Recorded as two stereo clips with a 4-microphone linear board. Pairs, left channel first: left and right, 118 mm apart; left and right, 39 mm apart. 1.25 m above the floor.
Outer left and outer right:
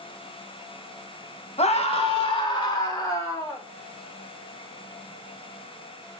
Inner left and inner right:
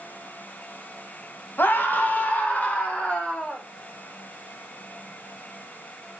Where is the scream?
60° left (ahead or behind), 1.9 m; by 3.6 s 25° left (ahead or behind), 3 m.